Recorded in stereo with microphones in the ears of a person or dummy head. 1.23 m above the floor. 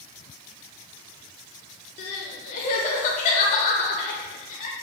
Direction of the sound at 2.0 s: 40° left (ahead or behind).